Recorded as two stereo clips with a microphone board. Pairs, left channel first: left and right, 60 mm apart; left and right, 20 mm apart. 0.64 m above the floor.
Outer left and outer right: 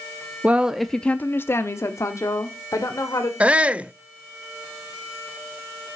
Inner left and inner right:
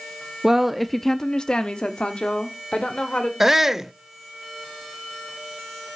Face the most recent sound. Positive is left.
turn(degrees=-20)  # may be behind; listen again after turning